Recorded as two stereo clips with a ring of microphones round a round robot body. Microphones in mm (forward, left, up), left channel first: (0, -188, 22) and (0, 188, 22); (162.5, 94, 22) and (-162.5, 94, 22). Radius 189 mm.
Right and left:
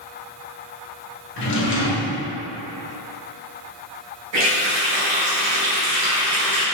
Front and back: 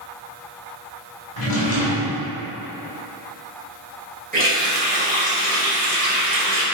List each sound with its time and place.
1.4 s a drawer: 30° right, 0.9 m
4.3 s a running tap: 115° left, 1.9 m